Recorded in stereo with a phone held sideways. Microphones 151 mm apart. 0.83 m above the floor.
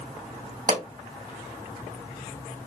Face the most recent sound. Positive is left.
turn(degrees=-65)  # may be behind; listen again after turning